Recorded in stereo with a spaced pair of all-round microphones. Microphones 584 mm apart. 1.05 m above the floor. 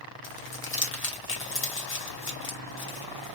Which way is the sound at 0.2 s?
20° left (ahead or behind).